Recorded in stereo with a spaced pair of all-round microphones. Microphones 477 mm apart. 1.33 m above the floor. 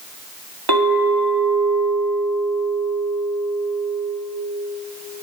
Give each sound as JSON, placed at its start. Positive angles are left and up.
{"t": 0.7, "sound": "a clink", "side_deg": -50, "distance_m": 2.5}